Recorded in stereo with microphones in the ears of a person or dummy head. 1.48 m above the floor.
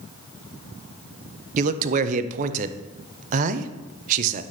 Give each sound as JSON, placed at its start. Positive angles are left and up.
{"t": 1.6, "sound": "a man speaking", "side_deg": -45, "distance_m": 0.9}